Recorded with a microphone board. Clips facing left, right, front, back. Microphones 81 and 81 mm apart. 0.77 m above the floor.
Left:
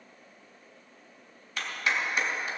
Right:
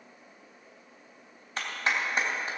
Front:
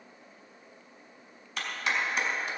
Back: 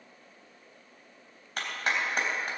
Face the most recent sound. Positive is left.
turn(degrees=-140)